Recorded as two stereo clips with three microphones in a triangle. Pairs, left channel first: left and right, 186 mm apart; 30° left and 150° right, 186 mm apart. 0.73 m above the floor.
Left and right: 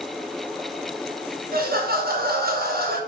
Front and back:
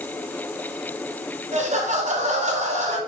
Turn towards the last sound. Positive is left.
turn(degrees=-105)